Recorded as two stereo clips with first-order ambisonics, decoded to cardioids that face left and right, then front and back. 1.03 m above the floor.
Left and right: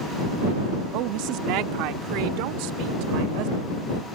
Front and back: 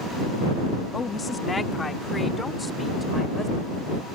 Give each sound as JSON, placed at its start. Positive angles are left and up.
{"t": 0.9, "sound": "a woman speaking", "azimuth_deg": -75}